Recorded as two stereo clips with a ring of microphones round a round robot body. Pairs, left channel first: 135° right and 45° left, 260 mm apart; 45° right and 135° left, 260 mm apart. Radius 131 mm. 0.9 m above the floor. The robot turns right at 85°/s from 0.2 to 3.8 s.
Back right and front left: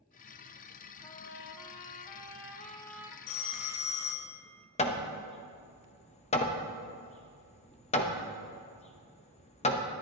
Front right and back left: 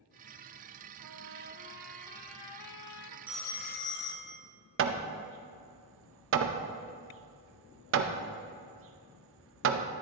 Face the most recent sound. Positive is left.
turn(degrees=165)